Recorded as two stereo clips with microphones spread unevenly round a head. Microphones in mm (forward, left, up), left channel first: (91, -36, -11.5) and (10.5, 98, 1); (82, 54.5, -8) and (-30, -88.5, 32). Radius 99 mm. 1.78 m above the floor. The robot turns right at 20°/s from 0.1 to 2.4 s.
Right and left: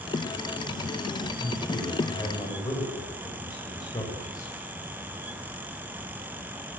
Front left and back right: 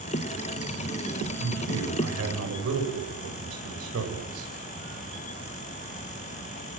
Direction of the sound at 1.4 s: 155° right.